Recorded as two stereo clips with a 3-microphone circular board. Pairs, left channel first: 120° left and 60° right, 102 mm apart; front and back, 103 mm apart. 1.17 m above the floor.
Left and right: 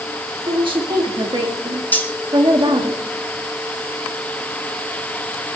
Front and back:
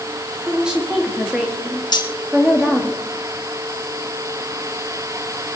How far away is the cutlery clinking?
About 1.0 m.